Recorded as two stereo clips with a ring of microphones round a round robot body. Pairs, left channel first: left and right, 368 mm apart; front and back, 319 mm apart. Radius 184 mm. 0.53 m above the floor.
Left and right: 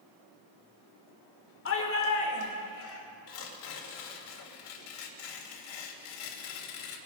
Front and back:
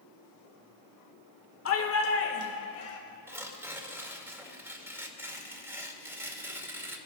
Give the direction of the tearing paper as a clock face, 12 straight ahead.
9 o'clock.